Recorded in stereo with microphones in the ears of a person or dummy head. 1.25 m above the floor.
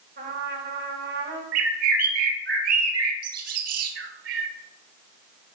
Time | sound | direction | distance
0.2 | a trumpet | 45° right (ahead or behind) | 5.5 m
1.5 | a bird | 55° right (ahead or behind) | 1.8 m